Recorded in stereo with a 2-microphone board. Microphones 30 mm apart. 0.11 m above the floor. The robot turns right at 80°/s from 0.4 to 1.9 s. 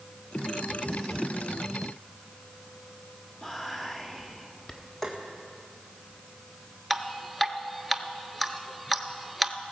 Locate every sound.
3.4 s whispering: 20° left (ahead or behind), 1.1 m
5.0 s tapping: 15° left (ahead or behind), 1.8 m
6.9 s dripping: 5° left (ahead or behind), 0.6 m